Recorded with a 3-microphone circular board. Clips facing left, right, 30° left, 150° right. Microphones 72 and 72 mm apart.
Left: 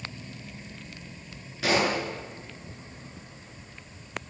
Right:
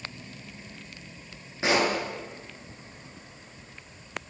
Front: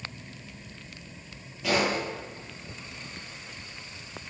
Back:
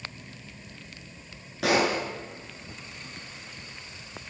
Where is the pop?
155° right, 8.5 m.